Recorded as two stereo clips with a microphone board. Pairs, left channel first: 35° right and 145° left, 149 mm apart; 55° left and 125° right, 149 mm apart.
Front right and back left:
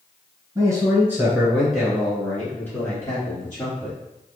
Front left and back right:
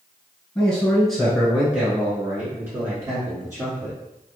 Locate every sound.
0.6 s a man speaking: 130° left, 1.5 m; by 4.0 s 75° right, 1.9 m